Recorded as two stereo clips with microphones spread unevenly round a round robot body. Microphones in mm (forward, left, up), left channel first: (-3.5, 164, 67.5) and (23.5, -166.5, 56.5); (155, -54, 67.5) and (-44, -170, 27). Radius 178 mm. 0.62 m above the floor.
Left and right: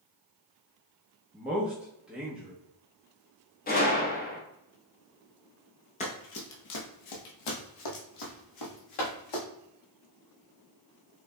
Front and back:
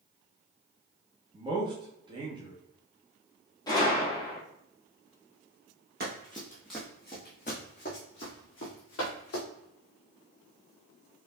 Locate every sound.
1.3 s a man speaking: 165° right, 1.0 m
3.7 s a gunshot: 105° left, 1.2 m
6.0 s running footsteps: 155° left, 0.7 m; by 9.4 s 80° left, 2.5 m